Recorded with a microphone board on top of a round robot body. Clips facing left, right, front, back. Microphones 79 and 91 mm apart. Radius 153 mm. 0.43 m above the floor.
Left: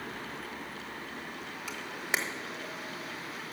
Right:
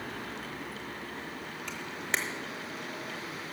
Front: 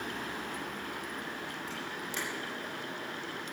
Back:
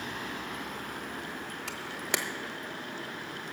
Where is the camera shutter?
170° left, 1.1 m.